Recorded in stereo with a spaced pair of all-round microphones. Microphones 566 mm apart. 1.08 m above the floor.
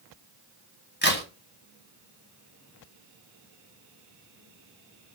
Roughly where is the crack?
Centre.